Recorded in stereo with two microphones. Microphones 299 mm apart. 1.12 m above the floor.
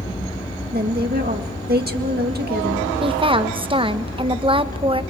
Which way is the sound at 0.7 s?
30° right (ahead or behind).